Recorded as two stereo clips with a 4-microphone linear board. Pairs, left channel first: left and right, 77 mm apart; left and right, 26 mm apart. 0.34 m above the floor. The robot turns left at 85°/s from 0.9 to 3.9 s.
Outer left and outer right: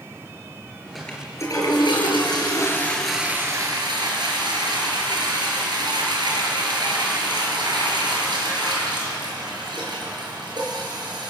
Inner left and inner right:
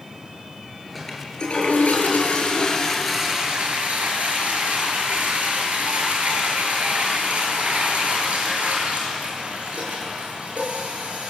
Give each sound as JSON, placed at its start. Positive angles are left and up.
{"t": 0.9, "sound": "a toilet flushing", "azimuth_deg": 180, "distance_m": 6.0}